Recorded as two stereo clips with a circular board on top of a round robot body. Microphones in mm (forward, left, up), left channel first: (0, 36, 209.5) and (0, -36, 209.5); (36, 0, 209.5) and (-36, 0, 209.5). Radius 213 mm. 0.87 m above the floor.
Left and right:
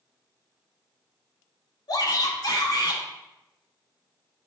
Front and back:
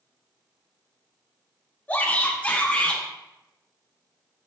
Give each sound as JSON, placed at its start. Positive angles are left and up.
{"t": 1.9, "sound": "a shout", "azimuth_deg": 70, "distance_m": 2.5}